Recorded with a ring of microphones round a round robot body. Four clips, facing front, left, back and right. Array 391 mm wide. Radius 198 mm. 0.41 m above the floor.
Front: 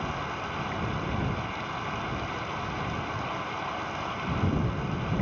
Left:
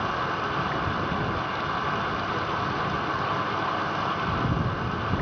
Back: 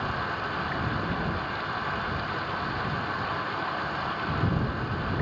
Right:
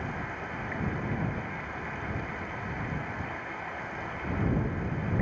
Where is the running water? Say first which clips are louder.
Left 9 dB, back 2 dB; 95° left.